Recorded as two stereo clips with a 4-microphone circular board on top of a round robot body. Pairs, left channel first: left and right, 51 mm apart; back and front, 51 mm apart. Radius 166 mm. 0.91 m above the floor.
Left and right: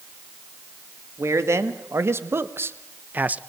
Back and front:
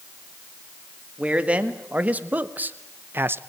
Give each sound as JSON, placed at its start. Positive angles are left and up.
{"t": 1.2, "sound": "a man speaking", "azimuth_deg": -65, "distance_m": 2.5}